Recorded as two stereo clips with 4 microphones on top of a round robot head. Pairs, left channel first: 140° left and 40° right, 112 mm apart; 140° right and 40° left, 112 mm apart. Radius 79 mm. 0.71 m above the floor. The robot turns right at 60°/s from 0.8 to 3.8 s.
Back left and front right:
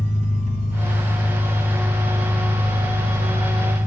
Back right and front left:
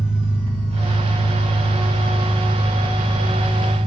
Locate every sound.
0.0 s an engine running: 10° right, 1.9 m; by 3.9 s 170° left, 1.9 m